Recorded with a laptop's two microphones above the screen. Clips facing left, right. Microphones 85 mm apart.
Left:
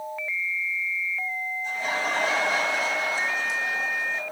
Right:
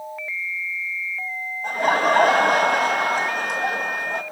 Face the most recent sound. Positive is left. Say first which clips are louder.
# right 11 dB
turn(degrees=-55)  # may be behind; listen again after turning